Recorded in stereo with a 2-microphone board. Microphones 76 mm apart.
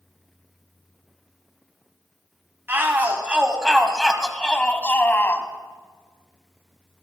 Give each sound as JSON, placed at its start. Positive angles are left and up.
{"t": 2.7, "sound": "a shout", "side_deg": -30, "distance_m": 1.5}